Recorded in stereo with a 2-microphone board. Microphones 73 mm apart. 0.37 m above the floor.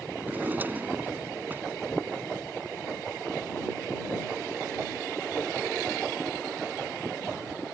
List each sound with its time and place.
0.2 s a drawer: 25° right (ahead or behind)